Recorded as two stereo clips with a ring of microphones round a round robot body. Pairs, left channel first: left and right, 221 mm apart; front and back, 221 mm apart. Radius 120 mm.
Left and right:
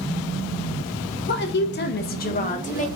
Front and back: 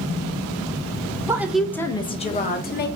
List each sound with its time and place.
1.3 s a woman speaking: 105° left, 0.8 m; by 2.9 s 35° left, 1.2 m